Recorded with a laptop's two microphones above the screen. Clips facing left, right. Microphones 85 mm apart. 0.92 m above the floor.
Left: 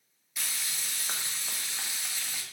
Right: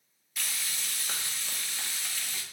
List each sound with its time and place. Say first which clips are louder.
0.4 s frying: right 1 dB; 20° left (ahead or behind), 0.7 m